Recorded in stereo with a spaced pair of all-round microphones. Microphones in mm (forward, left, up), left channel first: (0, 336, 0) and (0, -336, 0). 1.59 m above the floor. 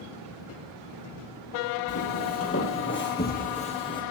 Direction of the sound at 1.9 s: 25° left (ahead or behind).